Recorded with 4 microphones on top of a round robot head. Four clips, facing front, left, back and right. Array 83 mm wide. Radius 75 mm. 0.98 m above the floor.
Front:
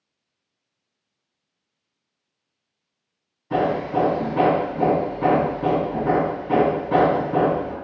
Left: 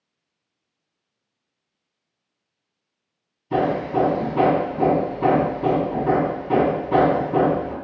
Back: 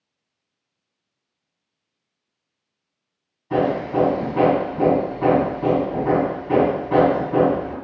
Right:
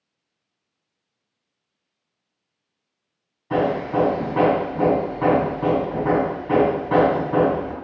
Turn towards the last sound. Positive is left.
turn(degrees=-95)